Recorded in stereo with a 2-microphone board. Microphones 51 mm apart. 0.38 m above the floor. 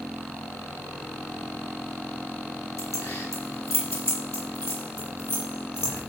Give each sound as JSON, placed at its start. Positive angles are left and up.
{"t": 2.8, "sound": "keys jangling", "side_deg": 75, "distance_m": 4.0}